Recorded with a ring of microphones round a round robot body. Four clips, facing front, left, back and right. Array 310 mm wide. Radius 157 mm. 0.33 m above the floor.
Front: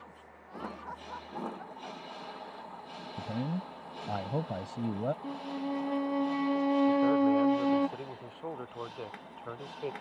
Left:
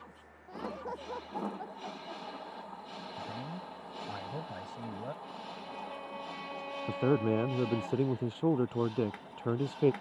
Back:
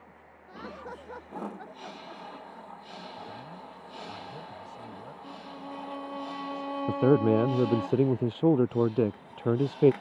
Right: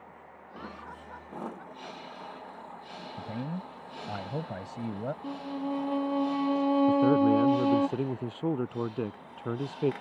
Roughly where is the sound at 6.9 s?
Behind.